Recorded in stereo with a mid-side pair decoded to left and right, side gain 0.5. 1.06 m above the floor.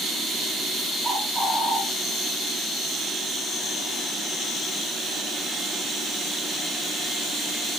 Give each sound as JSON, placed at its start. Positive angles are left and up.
{"t": 1.0, "sound": "a bird", "azimuth_deg": -25, "distance_m": 7.5}